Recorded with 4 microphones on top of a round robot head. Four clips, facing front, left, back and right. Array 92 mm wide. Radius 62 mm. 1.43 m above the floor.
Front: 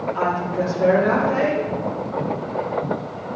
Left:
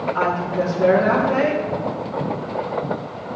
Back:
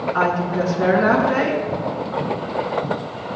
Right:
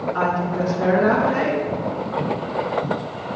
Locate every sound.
0.1 s a woman speaking: 170° right, 4.5 m